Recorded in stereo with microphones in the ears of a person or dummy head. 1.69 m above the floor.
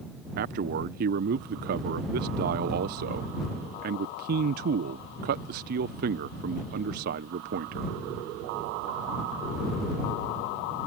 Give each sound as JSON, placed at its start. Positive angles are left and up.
{"t": 0.4, "sound": "a man speaking", "side_deg": -45}